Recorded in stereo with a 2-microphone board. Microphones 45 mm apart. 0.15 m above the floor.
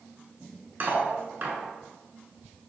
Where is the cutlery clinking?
45° right (ahead or behind), 1.0 m.